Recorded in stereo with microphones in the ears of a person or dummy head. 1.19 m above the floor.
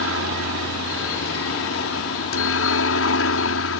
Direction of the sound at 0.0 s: 65° left (ahead or behind).